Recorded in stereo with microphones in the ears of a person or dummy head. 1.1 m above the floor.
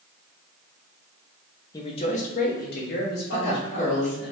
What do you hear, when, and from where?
1.7 s a man speaking: 15° left (ahead or behind), 0.5 m; by 4.3 s 55° left (ahead or behind), 1.8 m
3.3 s a woman speaking: 35° left (ahead or behind), 1.2 m